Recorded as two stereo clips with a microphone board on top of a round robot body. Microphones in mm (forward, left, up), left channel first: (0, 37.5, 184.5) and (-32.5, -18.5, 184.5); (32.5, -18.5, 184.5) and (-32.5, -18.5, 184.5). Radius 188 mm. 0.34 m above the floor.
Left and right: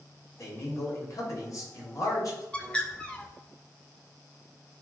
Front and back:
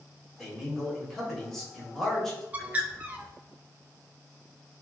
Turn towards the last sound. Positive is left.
turn(degrees=125)